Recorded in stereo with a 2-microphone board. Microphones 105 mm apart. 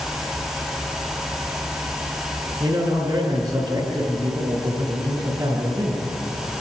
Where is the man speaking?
50° right (ahead or behind), 9 m.